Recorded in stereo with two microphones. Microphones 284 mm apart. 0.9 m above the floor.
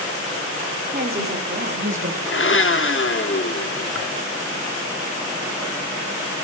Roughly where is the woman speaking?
Right.